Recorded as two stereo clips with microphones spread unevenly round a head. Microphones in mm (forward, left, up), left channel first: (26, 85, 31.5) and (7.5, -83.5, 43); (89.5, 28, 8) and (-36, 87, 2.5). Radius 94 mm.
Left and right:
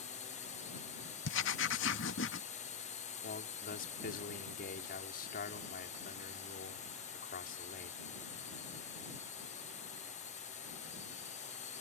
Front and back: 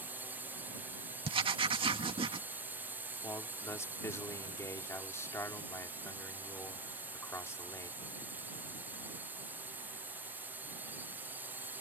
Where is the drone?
85° left.